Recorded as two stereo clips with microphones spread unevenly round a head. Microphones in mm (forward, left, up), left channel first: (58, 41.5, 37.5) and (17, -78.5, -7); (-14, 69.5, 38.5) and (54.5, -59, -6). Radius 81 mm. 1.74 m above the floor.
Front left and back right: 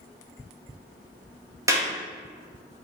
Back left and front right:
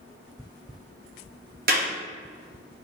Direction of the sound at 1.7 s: 40° right.